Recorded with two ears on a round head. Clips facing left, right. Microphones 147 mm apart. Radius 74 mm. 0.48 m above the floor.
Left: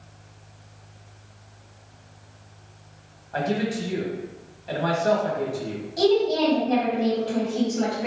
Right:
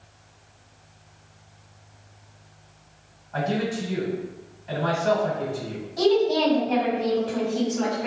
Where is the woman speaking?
20° left (ahead or behind), 1.9 m.